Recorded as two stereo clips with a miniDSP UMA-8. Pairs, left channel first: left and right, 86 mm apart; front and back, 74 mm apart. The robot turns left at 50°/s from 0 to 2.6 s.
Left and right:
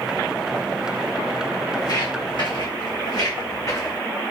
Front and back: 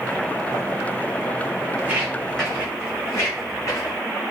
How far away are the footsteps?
About 1.6 m.